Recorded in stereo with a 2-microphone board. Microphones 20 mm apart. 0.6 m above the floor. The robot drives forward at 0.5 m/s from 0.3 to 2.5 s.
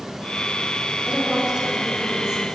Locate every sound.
1.1 s a woman speaking: 45° right (ahead or behind), 5.5 m